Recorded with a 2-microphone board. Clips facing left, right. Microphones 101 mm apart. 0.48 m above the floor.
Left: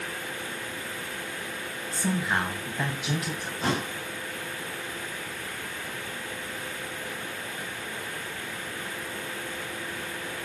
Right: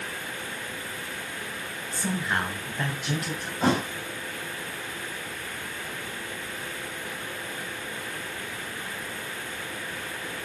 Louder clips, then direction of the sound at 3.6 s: Right 5 dB; 60° right (ahead or behind).